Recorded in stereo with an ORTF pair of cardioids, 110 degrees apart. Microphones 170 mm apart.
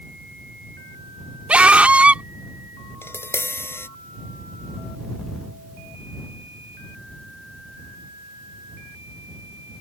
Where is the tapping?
15° left.